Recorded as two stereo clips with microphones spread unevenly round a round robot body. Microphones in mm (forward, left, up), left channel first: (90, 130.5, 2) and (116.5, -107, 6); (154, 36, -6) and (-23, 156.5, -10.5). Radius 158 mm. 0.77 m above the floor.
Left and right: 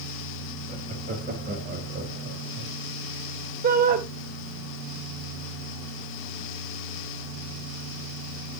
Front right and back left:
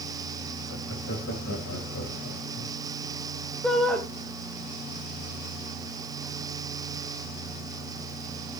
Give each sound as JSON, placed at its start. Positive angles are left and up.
{"t": 0.7, "sound": "laughter", "azimuth_deg": -30, "distance_m": 5.5}
{"t": 3.6, "sound": "a shout", "azimuth_deg": -125, "distance_m": 0.5}